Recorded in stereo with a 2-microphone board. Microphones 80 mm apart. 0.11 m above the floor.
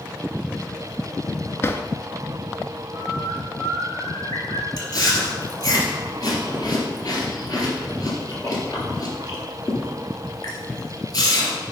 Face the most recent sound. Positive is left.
turn(degrees=50)  # may be behind; listen again after turning